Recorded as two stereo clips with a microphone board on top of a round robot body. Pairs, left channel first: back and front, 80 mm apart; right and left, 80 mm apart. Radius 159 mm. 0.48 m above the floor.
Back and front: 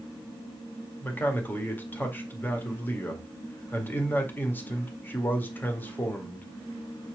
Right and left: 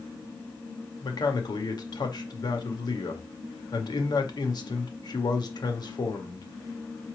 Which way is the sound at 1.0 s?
115° right.